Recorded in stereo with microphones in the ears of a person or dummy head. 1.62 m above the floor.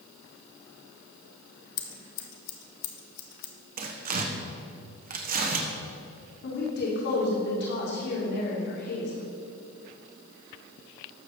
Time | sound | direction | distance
1.8 | scissors | 60° left (ahead or behind) | 1.2 m
3.8 | tearing paper | 45° right (ahead or behind) | 1.1 m
6.4 | a woman speaking | 55° left (ahead or behind) | 2.5 m